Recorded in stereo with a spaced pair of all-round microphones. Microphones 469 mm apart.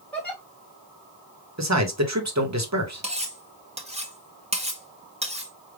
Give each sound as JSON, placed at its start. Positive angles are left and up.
{"t": 0.1, "sound": "a giggle", "side_deg": 5, "distance_m": 1.4}
{"t": 1.6, "sound": "a man speaking", "side_deg": -35, "distance_m": 0.9}
{"t": 3.0, "sound": "cutlery clinking", "side_deg": -15, "distance_m": 0.7}